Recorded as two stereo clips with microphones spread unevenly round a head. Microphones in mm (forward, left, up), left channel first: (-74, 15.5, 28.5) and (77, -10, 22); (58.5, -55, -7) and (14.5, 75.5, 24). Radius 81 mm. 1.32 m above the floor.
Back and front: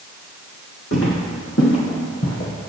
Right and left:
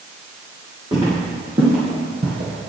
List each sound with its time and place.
0.9 s footsteps: 165° left, 3.5 m; by 2.7 s 145° left, 2.5 m